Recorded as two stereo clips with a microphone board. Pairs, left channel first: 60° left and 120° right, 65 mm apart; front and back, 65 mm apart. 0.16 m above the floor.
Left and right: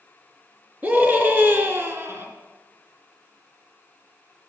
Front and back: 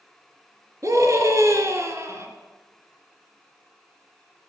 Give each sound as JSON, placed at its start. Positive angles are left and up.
{"t": 0.8, "sound": "a scream", "azimuth_deg": -175, "distance_m": 3.0}